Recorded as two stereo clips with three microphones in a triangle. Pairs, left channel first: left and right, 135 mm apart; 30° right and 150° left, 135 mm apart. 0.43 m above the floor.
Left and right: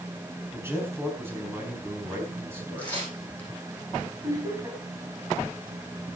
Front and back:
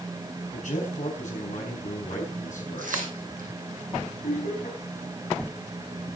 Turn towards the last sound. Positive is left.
turn(degrees=-25)